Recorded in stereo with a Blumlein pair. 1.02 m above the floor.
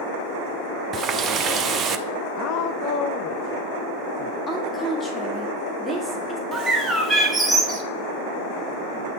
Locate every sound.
0.9 s a running tap: 25° right, 0.6 m
2.4 s a woman speaking: 40° left, 0.6 m
4.5 s a woman speaking: 10° left, 1.9 m
6.5 s a bird: 10° right, 1.2 m